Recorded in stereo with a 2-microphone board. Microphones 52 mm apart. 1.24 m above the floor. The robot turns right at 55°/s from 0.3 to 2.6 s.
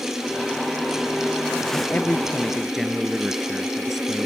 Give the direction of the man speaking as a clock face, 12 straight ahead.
8 o'clock.